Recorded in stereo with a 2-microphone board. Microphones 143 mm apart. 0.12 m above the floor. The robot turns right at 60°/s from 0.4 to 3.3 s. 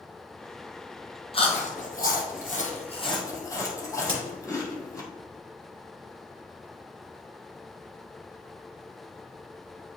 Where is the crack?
45° left (ahead or behind), 2.5 m.